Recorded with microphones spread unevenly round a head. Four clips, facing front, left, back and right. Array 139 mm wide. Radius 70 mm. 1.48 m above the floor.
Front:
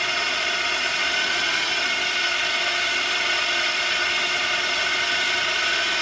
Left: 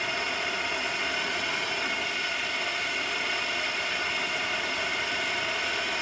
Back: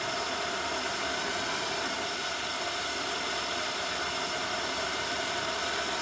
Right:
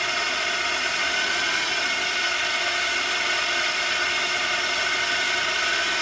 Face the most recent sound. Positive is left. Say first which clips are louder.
# right 4 dB, front 5 dB
turn(degrees=-35)